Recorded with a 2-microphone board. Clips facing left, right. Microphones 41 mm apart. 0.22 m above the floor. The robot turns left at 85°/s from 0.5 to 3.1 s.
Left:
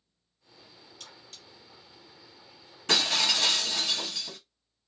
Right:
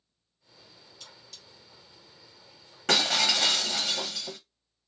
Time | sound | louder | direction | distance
1.0 | cutlery clinking | left 1 dB | 65° left (ahead or behind) | 1.7 m
2.9 | breaking glass | right 1 dB | 60° right (ahead or behind) | 1.3 m